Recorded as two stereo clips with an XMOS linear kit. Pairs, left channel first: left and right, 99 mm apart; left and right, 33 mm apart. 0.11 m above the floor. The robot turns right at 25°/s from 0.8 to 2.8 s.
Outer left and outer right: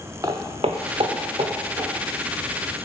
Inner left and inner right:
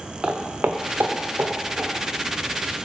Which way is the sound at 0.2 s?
30° right (ahead or behind).